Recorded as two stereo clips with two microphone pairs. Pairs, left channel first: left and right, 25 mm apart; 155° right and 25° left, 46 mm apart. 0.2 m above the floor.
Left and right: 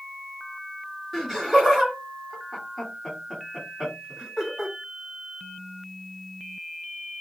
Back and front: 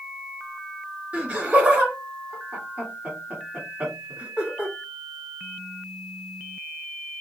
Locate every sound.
1.1 s laughter: 20° left, 1.7 m